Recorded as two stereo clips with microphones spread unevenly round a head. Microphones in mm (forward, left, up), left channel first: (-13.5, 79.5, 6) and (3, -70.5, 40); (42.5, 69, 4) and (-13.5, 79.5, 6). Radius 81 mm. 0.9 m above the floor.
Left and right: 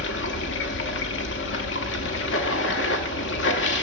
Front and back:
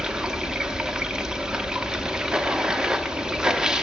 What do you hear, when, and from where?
0.0 s running water: 90° left, 0.7 m